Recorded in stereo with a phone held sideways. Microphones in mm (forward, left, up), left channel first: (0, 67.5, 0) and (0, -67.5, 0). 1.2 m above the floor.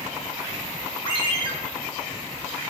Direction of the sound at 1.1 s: 40° left (ahead or behind).